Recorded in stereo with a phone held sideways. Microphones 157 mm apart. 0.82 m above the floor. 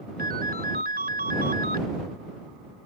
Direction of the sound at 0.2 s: 80° right.